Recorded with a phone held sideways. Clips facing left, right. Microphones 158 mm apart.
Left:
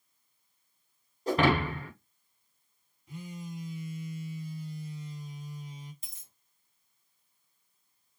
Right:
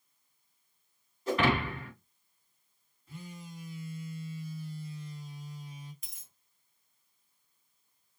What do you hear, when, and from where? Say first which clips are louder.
1.3 s breaking glass: left 3 dB; 40° left (ahead or behind), 1.4 m
3.1 s a phone buzzing: left 5 dB; 20° left (ahead or behind), 0.7 m
6.0 s a dropped coin: left 1 dB; 30° left (ahead or behind), 1.0 m